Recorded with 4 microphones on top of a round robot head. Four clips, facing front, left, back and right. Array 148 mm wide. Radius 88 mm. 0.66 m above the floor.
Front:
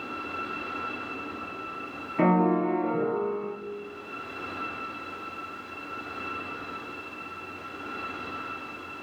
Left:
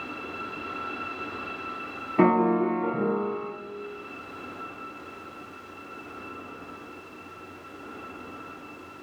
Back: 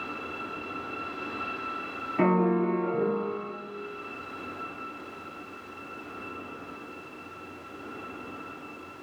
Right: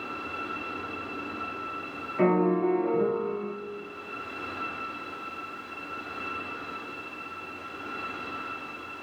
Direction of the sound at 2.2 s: 90° left.